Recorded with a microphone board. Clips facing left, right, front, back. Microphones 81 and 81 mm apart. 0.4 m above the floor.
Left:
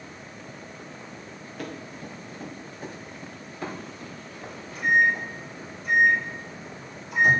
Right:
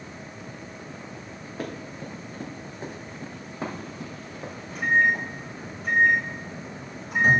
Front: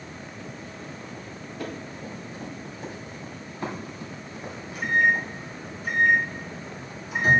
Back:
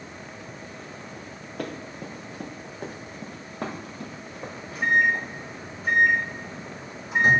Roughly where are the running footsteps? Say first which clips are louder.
Right 2 dB, back 2 dB; behind right.